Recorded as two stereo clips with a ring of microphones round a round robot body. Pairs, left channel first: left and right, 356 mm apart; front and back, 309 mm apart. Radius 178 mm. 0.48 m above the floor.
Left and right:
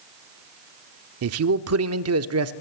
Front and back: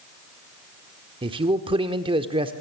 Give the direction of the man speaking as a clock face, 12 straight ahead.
4 o'clock.